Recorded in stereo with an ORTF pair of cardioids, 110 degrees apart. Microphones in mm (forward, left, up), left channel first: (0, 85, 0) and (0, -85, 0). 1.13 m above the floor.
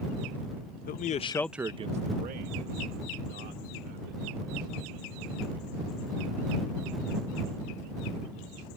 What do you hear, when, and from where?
0.9 s a man speaking: 60° left; by 6.0 s 80° right